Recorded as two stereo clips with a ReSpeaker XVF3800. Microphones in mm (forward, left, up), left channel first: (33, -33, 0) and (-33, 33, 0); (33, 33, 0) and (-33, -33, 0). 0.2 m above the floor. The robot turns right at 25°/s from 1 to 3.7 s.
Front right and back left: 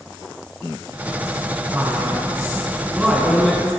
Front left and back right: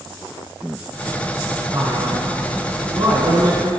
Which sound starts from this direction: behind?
A man speaking, at 1.7 s.